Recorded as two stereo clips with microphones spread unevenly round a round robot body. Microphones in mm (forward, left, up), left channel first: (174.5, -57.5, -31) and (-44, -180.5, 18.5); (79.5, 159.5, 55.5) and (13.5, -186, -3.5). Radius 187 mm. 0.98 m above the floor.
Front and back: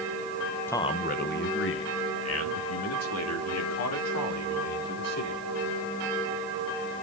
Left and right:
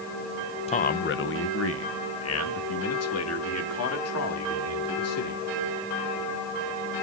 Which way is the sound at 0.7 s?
10° left.